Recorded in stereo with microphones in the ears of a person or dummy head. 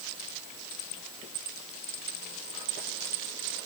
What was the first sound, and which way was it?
Only background noise.